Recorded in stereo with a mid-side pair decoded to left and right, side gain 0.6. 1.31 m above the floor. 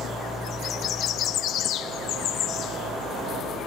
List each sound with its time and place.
0.0 s an engine running: 25° right, 10 m